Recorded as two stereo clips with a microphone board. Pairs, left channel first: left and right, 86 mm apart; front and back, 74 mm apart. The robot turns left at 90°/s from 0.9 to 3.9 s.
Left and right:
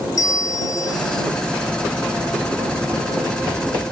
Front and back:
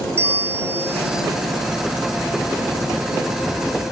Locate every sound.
0.2 s a bell: 125° left; by 1.2 s 95° left